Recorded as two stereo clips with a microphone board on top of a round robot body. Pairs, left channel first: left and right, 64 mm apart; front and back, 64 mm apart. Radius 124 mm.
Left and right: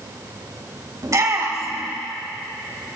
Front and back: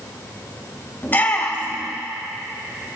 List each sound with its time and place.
1.0 s a shout: 60° right, 3.5 m